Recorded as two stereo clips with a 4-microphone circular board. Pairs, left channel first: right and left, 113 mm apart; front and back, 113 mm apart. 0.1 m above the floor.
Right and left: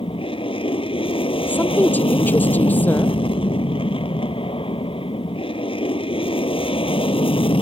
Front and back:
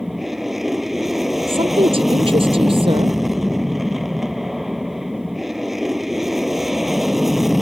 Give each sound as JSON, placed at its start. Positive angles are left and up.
{"t": 0.0, "sound": "an aircraft", "azimuth_deg": -95}
{"t": 1.5, "sound": "a woman speaking", "azimuth_deg": -165}